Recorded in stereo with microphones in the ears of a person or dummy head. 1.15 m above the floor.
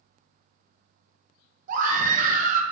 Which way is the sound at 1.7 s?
45° right (ahead or behind).